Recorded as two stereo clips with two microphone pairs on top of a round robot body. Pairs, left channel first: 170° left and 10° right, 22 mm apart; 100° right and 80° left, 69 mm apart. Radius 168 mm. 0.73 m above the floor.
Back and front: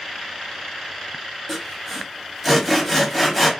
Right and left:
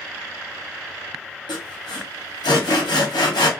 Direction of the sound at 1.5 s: 105° right.